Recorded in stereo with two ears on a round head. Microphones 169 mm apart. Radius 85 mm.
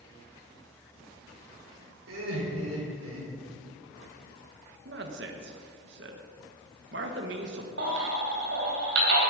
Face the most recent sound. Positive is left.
turn(degrees=-65)  # may be behind; listen again after turning